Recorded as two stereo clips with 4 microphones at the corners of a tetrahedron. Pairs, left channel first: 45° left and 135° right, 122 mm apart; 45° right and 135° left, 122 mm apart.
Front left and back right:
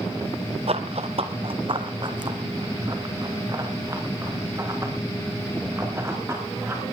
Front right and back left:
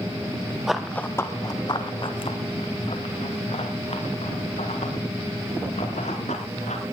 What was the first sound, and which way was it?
Running footsteps, 140° right.